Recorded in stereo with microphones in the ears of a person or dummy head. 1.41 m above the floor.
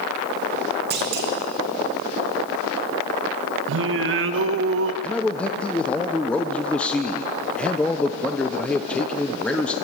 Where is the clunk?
45° right (ahead or behind), 2.0 m.